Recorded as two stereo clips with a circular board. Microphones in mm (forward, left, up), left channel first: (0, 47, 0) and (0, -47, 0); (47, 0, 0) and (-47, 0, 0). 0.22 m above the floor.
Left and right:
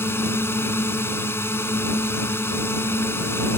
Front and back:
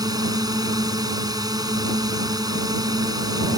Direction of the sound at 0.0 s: 150° left.